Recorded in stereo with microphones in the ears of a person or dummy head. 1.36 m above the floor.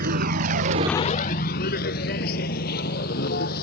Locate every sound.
0.0 s a vehicle: 50° right (ahead or behind); by 3.6 s 50° left (ahead or behind)